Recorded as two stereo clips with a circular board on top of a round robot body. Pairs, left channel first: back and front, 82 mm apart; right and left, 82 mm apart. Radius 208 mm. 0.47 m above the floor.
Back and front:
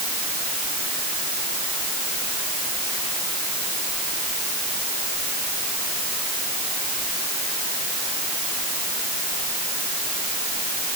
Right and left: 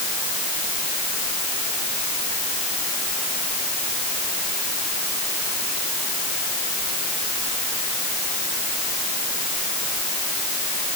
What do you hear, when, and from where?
Only background noise.